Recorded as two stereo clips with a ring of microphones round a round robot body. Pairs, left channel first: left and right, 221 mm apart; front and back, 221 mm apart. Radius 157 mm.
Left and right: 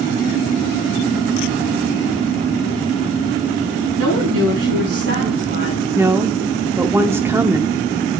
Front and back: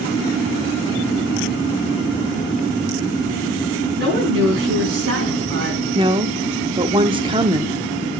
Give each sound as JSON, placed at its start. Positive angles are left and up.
{"t": 4.0, "sound": "a woman speaking", "azimuth_deg": -125, "distance_m": 4.5}
{"t": 6.0, "sound": "a woman speaking", "azimuth_deg": -155, "distance_m": 0.7}